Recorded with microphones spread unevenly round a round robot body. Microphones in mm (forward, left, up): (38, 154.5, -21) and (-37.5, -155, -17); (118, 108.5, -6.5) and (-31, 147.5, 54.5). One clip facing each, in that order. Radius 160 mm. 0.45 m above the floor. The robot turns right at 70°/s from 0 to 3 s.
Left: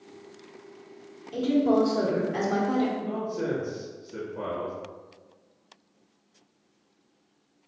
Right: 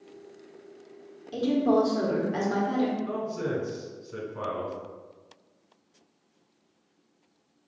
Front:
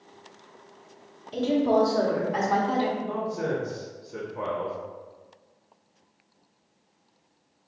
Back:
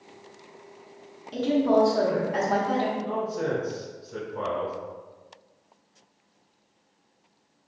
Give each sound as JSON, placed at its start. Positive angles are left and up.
{"t": 1.3, "sound": "a woman speaking", "azimuth_deg": -140, "distance_m": 1.0}
{"t": 3.0, "sound": "a man speaking", "azimuth_deg": -150, "distance_m": 1.6}